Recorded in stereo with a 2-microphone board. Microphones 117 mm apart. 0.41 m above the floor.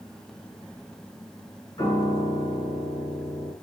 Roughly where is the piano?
Left.